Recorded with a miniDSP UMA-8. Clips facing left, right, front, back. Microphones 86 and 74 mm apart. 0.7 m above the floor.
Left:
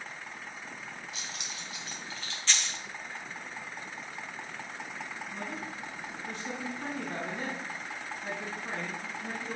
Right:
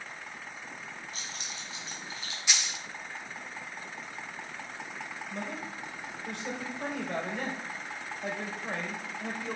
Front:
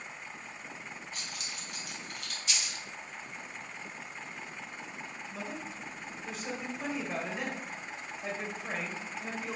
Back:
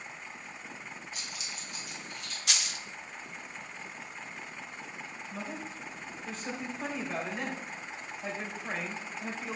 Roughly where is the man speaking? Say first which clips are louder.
Right 3 dB, back 1 dB; right.